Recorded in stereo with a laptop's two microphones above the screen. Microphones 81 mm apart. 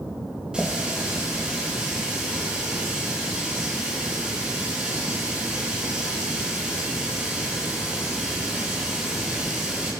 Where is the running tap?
10° right (ahead or behind), 4 m.